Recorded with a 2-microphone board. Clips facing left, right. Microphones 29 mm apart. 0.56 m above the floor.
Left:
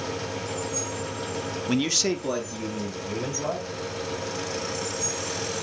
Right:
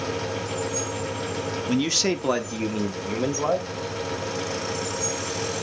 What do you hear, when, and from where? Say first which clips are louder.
1.7 s a man speaking: right 1 dB; 15° left (ahead or behind), 0.9 m; by 3.7 s 65° right (ahead or behind), 2.5 m